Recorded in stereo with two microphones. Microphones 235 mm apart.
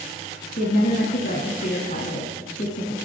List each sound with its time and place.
0.6 s a woman speaking: 35° left (ahead or behind), 1.4 m